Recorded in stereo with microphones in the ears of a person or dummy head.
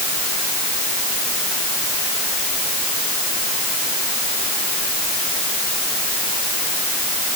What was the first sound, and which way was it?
Only background noise.